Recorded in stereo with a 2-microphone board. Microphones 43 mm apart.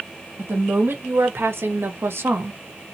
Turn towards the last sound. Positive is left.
turn(degrees=-50)  # may be behind; listen again after turning